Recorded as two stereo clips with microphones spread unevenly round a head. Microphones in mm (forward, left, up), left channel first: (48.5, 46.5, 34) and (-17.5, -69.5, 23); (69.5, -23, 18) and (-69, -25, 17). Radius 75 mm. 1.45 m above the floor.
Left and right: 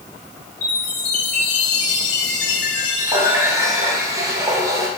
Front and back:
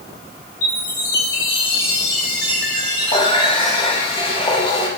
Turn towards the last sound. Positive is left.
turn(degrees=-50)